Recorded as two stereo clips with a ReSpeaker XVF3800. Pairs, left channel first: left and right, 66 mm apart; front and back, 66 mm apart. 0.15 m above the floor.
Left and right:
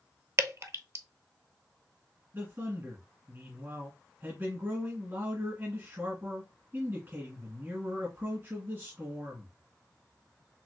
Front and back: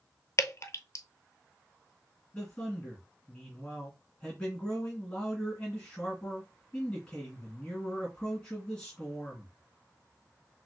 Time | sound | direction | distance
0.4 | dripping | 45° right | 0.6 m
2.3 | a man speaking | 70° right | 2 m